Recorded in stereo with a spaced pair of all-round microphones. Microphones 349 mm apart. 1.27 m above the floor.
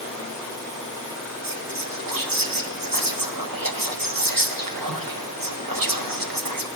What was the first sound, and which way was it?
Whispering, 85° right.